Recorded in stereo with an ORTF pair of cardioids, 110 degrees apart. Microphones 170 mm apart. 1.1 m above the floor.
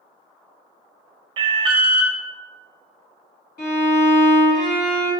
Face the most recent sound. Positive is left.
turn(degrees=65)